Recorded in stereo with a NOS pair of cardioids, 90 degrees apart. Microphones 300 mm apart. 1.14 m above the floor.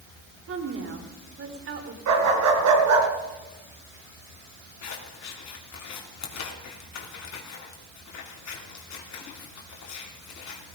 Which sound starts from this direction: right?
A dog barking, at 2.1 s.